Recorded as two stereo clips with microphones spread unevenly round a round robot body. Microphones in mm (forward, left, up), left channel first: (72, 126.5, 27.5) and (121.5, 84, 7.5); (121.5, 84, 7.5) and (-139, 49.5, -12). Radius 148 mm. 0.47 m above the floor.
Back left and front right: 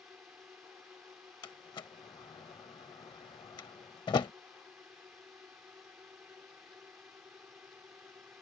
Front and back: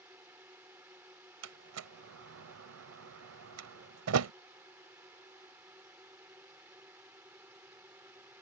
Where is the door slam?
170° left.